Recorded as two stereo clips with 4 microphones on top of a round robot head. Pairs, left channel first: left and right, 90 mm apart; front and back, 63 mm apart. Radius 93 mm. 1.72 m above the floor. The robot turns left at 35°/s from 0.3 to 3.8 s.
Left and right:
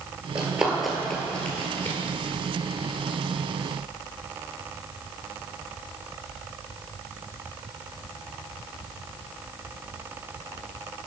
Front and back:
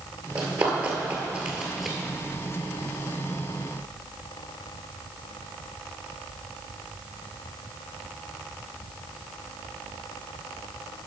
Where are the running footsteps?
145° right, 2 m; by 2.0 s 95° left, 1.9 m.